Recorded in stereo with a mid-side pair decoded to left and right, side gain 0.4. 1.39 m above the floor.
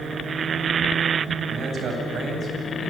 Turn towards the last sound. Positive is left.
turn(degrees=-55)